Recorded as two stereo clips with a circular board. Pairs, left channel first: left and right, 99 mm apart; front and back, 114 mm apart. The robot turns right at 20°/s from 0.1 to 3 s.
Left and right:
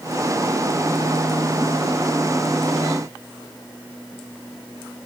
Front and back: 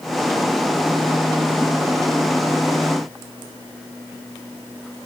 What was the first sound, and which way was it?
Only background noise.